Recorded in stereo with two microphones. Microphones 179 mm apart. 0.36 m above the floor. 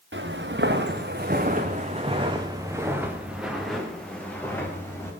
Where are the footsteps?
80° right, 2.5 m; by 5.1 s 15° left (ahead or behind), 4.5 m.